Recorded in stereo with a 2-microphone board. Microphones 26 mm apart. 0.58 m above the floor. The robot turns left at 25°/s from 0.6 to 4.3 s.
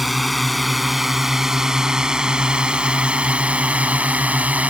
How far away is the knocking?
No knocking in this recording.